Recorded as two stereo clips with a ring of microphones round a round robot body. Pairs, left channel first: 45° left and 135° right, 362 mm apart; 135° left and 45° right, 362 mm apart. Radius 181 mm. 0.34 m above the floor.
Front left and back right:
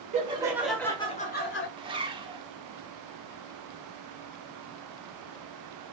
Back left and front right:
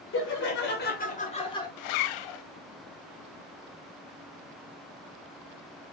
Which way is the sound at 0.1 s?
165° left.